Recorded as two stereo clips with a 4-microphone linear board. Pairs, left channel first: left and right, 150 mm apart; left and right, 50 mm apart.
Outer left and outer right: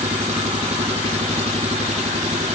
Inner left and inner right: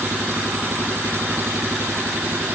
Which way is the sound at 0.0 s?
45° right (ahead or behind).